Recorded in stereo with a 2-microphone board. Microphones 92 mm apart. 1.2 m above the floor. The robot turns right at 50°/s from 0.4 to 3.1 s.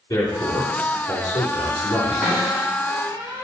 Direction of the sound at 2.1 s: 5° right (ahead or behind).